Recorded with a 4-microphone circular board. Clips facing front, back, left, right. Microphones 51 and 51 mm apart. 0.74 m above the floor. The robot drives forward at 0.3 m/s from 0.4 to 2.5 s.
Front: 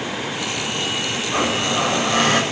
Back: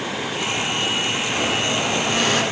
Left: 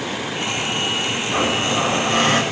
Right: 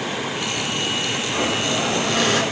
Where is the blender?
45° left, 2.5 m; by 2.4 s 50° left, 2.5 m.